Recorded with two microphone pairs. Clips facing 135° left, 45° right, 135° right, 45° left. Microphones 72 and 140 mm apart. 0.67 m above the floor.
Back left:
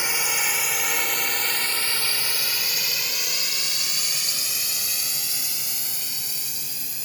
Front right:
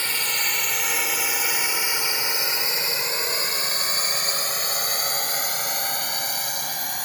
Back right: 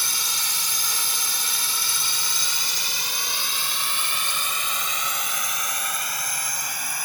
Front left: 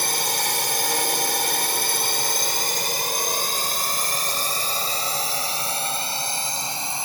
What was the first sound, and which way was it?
A drone, 60° left.